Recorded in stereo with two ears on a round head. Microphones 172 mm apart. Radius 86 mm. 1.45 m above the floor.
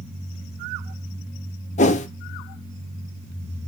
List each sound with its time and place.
1.8 s a whoosh: 40° left (ahead or behind), 0.8 m